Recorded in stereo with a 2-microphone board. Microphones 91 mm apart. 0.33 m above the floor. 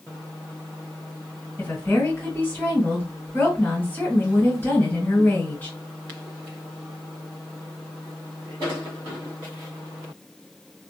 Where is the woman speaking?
25° left (ahead or behind), 1.9 m.